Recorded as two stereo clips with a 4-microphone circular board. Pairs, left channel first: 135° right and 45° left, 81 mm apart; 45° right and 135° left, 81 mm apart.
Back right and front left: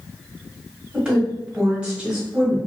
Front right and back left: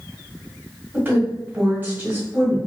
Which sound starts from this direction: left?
A woman speaking, at 0.9 s.